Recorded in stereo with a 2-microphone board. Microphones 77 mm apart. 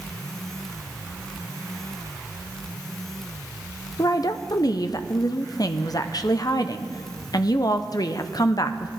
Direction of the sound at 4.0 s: 55° left (ahead or behind).